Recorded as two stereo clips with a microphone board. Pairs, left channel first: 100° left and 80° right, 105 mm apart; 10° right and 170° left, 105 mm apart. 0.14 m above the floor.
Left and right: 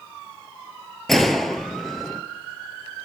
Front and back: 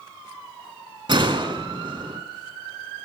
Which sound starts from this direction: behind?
A gunshot, at 1.1 s.